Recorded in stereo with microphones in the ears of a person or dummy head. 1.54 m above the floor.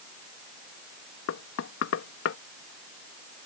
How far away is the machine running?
I don't hear a machine running.